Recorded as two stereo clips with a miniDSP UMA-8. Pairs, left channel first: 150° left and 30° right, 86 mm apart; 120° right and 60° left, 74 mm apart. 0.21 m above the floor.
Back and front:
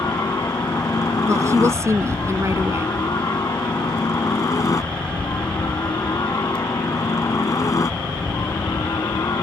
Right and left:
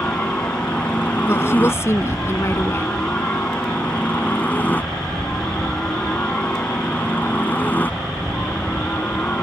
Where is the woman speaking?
75° right.